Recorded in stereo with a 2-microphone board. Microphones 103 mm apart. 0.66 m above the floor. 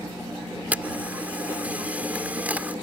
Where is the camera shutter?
15° right (ahead or behind).